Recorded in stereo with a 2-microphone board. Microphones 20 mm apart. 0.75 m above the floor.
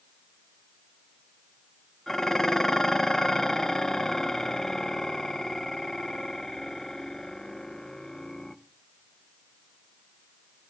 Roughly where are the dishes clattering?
Left.